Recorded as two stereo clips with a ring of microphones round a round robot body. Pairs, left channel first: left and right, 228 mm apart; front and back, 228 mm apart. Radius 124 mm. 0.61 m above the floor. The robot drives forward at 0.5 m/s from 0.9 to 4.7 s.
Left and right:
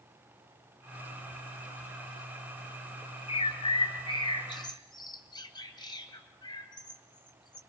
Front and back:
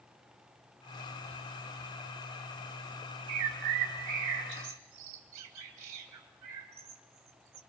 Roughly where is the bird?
Behind left.